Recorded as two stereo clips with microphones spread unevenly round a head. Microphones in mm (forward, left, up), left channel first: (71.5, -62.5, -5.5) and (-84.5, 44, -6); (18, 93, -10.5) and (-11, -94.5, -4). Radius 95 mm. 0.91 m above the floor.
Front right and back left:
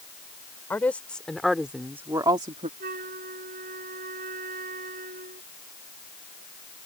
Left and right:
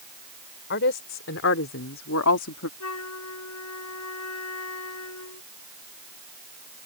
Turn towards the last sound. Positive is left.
turn(degrees=95)